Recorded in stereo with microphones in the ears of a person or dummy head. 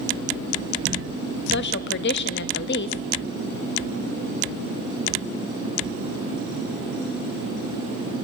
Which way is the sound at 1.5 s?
55° left (ahead or behind).